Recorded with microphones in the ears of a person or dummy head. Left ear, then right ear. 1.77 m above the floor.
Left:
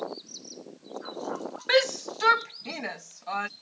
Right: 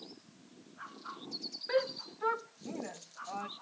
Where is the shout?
75° left (ahead or behind); by 3.5 s 65° left (ahead or behind).